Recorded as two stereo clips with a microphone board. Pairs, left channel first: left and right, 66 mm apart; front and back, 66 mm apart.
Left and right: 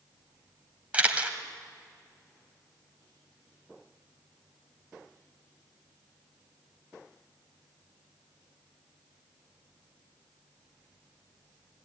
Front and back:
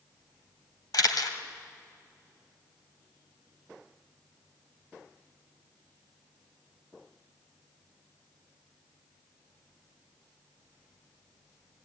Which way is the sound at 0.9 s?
20° right.